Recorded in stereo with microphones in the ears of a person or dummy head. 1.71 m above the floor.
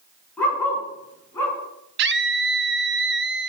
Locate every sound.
0.4 s a dog barking: 10° left (ahead or behind), 8 m; by 1.6 s 15° left (ahead or behind), 9 m
2.0 s a scream: 65° right (ahead or behind), 0.8 m